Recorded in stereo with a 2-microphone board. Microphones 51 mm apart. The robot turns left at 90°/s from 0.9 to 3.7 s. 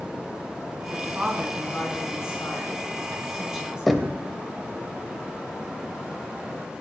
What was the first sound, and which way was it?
A woman speaking, 130° right.